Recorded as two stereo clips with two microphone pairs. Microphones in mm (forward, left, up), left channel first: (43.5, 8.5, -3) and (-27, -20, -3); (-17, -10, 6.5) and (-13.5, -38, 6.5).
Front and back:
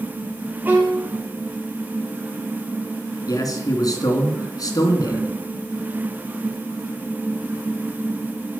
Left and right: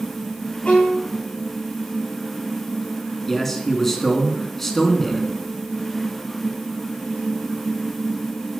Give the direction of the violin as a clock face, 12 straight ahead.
7 o'clock.